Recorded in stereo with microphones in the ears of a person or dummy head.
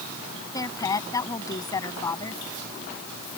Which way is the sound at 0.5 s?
20° left (ahead or behind).